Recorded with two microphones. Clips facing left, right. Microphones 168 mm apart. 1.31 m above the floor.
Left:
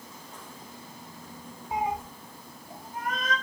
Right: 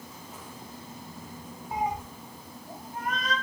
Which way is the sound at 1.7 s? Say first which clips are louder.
Left 1 dB; 20° left (ahead or behind).